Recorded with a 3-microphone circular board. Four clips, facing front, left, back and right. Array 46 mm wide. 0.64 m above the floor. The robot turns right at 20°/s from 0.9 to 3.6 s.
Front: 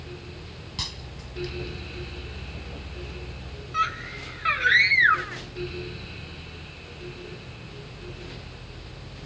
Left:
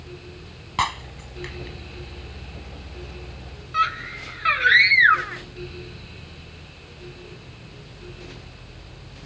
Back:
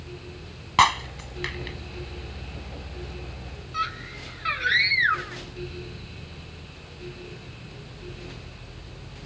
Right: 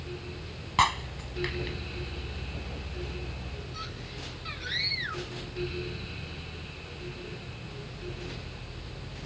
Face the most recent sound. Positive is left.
turn(degrees=80)